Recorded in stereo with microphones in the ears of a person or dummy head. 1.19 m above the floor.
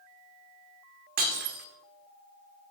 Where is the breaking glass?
55° right (ahead or behind), 1.3 m.